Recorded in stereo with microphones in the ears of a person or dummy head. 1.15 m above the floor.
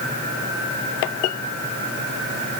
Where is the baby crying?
No baby crying in this recording.